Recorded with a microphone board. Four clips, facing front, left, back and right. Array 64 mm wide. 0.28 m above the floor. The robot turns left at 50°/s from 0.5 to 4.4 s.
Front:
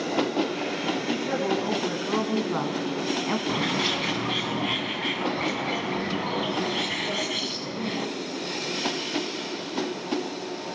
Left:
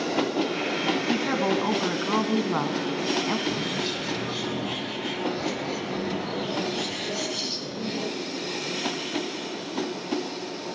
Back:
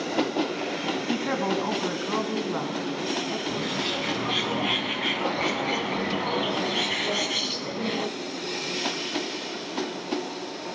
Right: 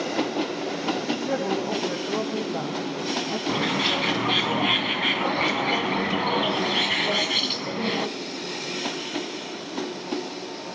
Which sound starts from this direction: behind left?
A woman speaking, at 1.1 s.